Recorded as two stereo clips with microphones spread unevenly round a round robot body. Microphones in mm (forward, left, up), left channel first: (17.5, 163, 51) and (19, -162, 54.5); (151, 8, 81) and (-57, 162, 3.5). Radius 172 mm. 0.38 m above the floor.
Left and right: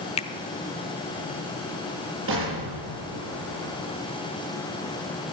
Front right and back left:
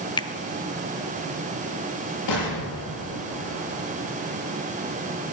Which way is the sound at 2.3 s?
35° right.